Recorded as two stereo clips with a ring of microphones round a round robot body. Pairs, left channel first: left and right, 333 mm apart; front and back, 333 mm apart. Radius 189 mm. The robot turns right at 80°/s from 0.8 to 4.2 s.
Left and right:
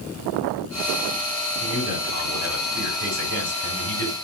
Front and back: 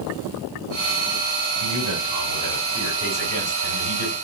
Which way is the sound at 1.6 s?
Straight behind.